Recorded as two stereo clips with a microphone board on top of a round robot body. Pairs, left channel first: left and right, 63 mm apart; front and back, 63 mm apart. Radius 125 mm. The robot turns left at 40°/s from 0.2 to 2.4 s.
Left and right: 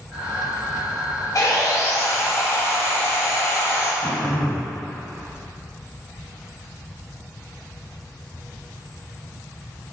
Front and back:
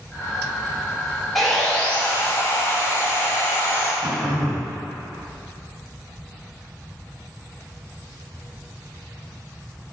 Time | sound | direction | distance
1.4 | sawing | 90° left | 1.2 m
4.0 | throat clearing | 160° left | 1.0 m